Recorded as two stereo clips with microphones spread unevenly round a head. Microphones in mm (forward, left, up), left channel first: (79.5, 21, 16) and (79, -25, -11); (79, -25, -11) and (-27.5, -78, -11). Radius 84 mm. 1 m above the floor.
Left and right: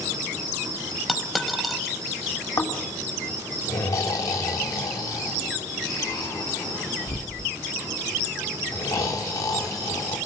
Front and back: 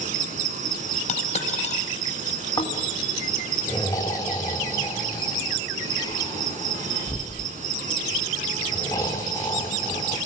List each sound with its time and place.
0.0 s an insect: 140° right, 3.5 m
1.1 s a dropped coin: 5° left, 5.5 m
2.6 s snoring: 95° left, 3 m